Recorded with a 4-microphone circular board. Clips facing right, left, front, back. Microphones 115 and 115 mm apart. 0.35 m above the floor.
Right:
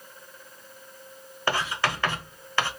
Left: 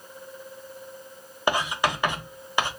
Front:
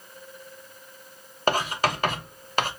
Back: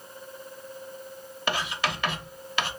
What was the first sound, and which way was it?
Writing, 25° left.